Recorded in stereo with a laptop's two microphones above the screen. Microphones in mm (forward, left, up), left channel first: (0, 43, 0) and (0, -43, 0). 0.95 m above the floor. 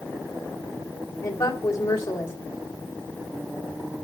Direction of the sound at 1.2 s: 40° left (ahead or behind).